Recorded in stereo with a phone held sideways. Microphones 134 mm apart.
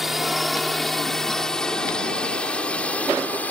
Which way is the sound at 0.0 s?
Centre (ahead or behind).